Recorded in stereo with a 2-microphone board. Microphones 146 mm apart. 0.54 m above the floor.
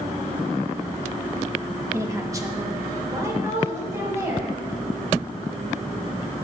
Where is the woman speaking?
20° right (ahead or behind), 0.7 m.